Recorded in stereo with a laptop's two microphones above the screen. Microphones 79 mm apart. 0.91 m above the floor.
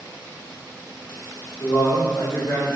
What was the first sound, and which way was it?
A man speaking, 75° left (ahead or behind).